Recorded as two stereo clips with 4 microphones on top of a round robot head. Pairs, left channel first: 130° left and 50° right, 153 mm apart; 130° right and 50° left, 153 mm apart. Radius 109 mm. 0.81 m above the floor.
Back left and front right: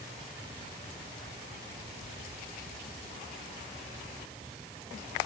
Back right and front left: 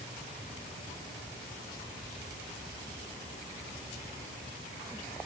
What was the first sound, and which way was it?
Only background noise.